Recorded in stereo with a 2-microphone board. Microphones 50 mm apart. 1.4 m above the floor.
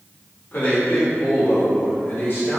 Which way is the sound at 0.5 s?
50° left (ahead or behind).